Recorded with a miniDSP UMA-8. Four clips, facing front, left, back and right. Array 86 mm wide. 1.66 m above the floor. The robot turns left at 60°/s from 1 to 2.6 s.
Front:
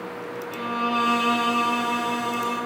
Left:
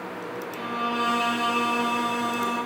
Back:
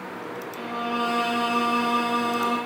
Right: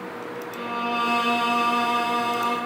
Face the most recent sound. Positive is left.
turn(degrees=-105)